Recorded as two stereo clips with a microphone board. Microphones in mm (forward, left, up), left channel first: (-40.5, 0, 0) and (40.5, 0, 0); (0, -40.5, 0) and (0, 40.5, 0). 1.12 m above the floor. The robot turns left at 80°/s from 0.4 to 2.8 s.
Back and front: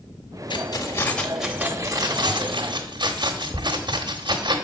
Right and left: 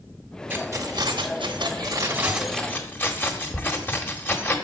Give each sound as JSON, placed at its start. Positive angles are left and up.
{"t": 0.5, "sound": "keys jangling", "azimuth_deg": 160, "distance_m": 1.2}